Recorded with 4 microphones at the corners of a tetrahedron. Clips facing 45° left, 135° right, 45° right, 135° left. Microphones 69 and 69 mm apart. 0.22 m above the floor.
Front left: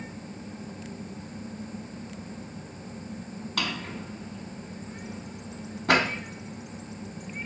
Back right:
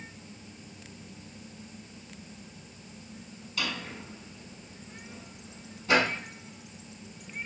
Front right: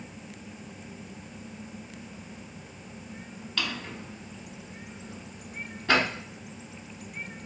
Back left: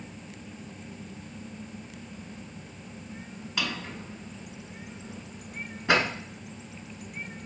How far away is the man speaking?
I don't hear a man speaking.